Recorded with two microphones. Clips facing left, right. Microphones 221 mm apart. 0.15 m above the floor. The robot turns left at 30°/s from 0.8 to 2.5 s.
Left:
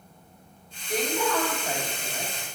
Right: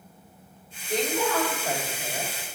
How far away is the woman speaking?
About 3 m.